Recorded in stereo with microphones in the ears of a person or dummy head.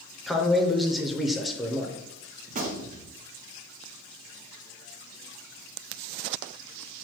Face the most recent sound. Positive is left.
turn(degrees=-40)  # may be behind; listen again after turning